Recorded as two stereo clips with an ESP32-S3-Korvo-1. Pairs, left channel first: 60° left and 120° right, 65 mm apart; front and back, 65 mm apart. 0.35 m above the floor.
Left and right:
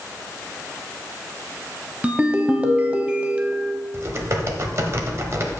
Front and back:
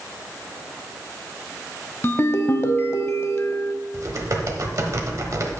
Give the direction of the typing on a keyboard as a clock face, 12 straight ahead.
5 o'clock.